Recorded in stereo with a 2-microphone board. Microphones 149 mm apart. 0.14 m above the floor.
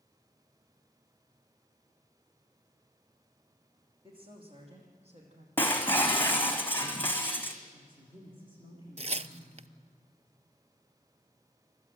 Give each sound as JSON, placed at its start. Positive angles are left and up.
{"t": 4.0, "sound": "a woman speaking", "side_deg": -35, "distance_m": 5.5}
{"t": 5.6, "sound": "breaking glass", "side_deg": 10, "distance_m": 1.8}
{"t": 7.7, "sound": "a woman speaking", "side_deg": -35, "distance_m": 9.0}
{"t": 9.0, "sound": "tearing paper", "side_deg": -45, "distance_m": 0.6}